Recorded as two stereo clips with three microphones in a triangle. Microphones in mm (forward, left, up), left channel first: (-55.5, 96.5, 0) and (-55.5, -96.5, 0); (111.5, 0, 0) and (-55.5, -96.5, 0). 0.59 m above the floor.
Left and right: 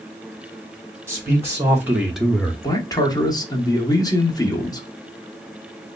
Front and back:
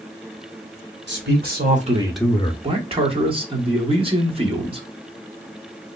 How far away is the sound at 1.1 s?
About 1.8 m.